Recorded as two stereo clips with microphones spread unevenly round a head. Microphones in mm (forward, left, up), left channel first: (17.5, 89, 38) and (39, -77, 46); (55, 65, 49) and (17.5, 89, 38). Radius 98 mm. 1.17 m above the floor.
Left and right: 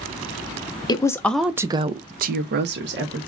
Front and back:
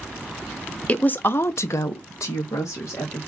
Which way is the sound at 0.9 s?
35° left.